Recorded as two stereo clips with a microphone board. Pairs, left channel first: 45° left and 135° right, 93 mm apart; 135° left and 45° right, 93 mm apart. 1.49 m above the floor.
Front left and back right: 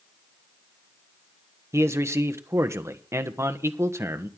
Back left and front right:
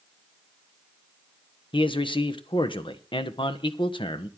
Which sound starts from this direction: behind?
A man speaking, at 1.7 s.